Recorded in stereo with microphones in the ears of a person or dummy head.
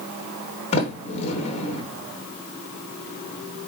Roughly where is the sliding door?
Left.